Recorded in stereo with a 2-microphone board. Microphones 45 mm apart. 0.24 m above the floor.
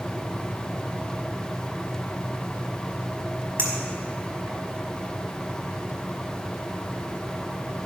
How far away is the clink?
About 2 m.